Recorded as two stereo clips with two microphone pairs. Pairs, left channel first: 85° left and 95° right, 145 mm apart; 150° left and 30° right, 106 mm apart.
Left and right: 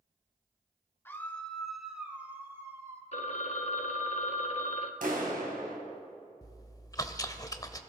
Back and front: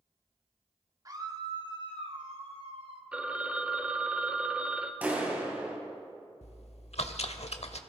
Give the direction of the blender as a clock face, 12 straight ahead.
No blender in this recording.